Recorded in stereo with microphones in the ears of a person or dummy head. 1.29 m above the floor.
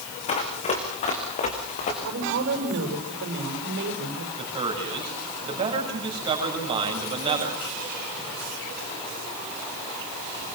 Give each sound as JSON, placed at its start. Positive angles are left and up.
{"t": 0.3, "sound": "running footsteps", "side_deg": 35, "distance_m": 3.5}
{"t": 2.0, "sound": "a woman speaking", "side_deg": -70, "distance_m": 6.0}
{"t": 4.4, "sound": "a man speaking", "side_deg": -25, "distance_m": 7.0}